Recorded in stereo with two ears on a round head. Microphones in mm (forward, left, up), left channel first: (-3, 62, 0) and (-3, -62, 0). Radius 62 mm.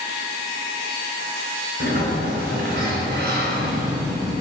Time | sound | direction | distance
1.8 | a sliding door | 75° right (ahead or behind) | 5 m